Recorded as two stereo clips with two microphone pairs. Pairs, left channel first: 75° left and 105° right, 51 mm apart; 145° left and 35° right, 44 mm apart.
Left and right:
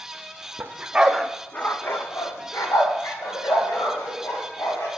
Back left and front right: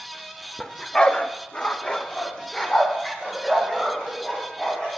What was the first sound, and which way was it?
A dog barking, 140° right.